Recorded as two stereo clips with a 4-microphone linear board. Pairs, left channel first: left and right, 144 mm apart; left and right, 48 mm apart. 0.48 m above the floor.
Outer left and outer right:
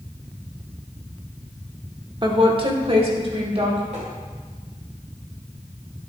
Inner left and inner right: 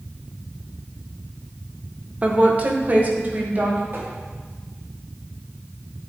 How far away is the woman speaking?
About 0.9 m.